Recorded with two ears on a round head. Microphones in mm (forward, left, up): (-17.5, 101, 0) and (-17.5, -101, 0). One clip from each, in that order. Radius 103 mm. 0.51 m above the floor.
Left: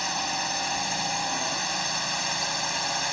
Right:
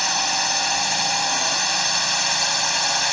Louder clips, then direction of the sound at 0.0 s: Right 7 dB; 35° right (ahead or behind).